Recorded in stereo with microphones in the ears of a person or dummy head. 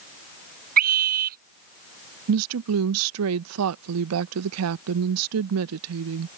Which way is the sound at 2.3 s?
70° right (ahead or behind).